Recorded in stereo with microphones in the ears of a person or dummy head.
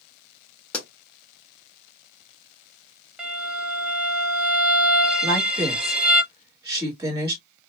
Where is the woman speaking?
15° right (ahead or behind), 2 m.